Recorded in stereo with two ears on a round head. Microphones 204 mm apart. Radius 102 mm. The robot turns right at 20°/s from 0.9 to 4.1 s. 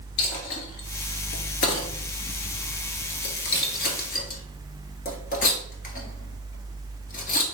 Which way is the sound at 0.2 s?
70° left (ahead or behind).